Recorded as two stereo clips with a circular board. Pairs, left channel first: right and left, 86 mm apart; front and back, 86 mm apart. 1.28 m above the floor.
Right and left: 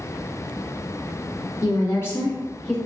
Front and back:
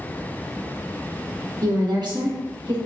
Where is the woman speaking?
135° right, 1.1 m; by 2.8 s 175° right, 1.3 m.